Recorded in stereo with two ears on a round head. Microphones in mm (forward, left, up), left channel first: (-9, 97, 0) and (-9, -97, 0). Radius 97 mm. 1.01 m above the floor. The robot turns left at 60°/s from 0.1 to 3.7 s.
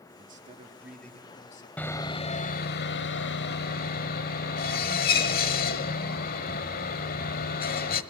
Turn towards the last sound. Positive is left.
turn(degrees=55)